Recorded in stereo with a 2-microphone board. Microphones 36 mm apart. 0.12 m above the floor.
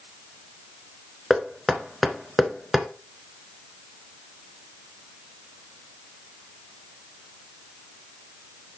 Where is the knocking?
5° right (ahead or behind), 1.1 m.